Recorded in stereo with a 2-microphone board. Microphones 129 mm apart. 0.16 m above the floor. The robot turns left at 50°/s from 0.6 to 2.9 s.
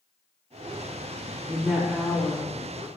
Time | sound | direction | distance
1.5 | a woman speaking | 10° right (ahead or behind) | 1.1 m